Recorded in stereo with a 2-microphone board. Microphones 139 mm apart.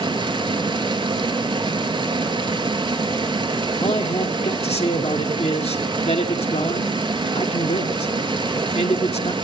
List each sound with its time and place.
0.0 s running water: 35° right (ahead or behind), 1.1 m
3.8 s a man speaking: 50° left (ahead or behind), 1.7 m